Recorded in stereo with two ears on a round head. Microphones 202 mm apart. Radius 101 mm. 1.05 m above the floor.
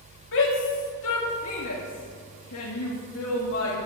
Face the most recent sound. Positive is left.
turn(degrees=60)  # may be behind; listen again after turning